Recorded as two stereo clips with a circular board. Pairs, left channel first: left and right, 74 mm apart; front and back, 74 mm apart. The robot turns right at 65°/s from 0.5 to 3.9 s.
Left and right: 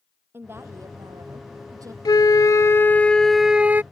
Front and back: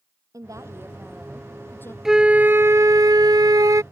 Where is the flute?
95° left; by 3.8 s 150° right.